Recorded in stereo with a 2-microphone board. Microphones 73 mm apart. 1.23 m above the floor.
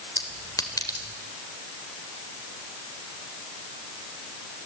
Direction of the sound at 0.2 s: 55° left (ahead or behind).